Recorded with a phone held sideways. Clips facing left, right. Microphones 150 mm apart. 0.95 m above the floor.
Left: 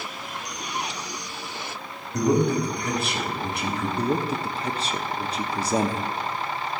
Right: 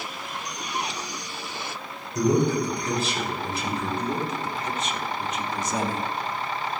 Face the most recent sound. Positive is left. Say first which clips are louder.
# left 3 dB
turn(degrees=30)  # may be behind; listen again after turning